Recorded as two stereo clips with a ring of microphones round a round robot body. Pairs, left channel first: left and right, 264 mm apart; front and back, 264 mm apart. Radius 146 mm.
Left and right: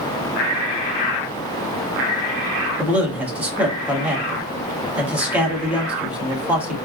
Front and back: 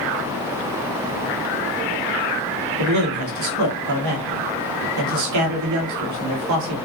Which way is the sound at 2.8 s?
175° right.